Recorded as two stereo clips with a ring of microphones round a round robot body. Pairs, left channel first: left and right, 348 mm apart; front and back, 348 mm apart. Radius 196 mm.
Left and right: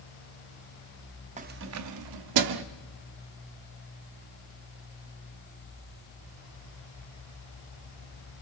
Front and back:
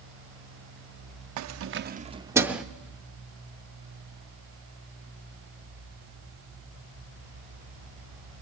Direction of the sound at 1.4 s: 155° right.